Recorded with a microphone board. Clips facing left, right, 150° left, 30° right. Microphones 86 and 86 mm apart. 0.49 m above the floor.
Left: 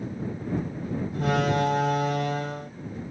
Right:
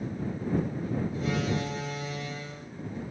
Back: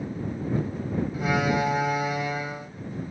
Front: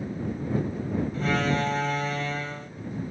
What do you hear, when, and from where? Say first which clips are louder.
1.1 s a door slam: left 10 dB, back 2 dB; 75° left